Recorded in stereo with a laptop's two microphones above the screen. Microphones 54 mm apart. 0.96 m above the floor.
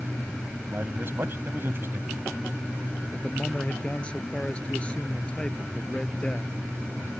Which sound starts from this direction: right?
A man speaking, at 0.6 s.